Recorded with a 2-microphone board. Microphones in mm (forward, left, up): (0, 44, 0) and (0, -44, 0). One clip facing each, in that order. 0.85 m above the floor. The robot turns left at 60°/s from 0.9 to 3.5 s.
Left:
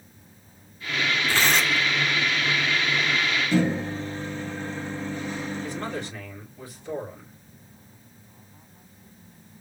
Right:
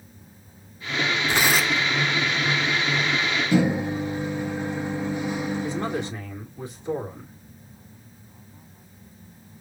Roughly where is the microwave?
Centre.